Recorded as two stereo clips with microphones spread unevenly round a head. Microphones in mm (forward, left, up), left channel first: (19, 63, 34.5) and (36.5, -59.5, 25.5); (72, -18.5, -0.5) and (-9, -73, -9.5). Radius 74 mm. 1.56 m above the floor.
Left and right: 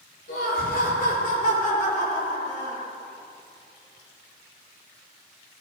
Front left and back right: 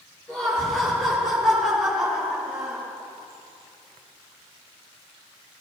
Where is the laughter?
115° left, 5 m; by 2.9 s 135° left, 6.5 m.